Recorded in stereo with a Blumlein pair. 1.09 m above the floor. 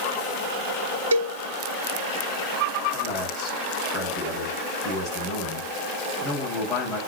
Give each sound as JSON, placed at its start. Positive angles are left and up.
{"t": 1.1, "sound": "a cowbell", "azimuth_deg": -70, "distance_m": 0.9}
{"t": 2.9, "sound": "a man speaking", "azimuth_deg": 25, "distance_m": 7.0}